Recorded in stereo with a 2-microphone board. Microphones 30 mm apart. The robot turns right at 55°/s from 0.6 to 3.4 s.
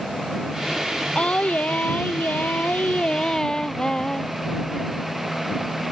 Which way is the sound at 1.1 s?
35° left.